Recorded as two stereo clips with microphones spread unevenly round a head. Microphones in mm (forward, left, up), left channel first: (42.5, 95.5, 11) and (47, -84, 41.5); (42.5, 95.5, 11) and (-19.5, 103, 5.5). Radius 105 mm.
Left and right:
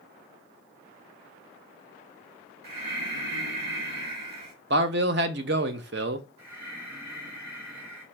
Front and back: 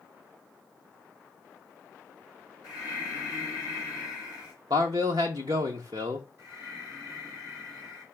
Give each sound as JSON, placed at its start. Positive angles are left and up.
{"t": 2.6, "sound": "breathing", "azimuth_deg": -55, "distance_m": 1.7}
{"t": 4.7, "sound": "a man speaking", "azimuth_deg": -130, "distance_m": 0.5}
{"t": 6.4, "sound": "breathing", "azimuth_deg": -105, "distance_m": 2.5}